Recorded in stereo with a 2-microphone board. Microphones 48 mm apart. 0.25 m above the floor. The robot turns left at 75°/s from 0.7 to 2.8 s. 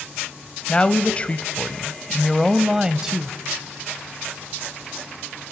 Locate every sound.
0.7 s a woman speaking: 20° left (ahead or behind), 0.9 m; by 3.4 s 15° right (ahead or behind), 0.9 m